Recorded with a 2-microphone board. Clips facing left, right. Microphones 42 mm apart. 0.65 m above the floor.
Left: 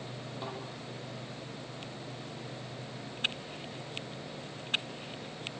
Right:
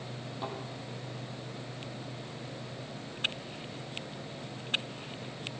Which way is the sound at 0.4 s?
5° left (ahead or behind).